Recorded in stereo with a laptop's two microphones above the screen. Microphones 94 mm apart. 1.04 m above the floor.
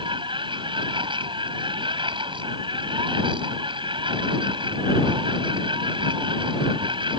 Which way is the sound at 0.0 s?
60° right (ahead or behind).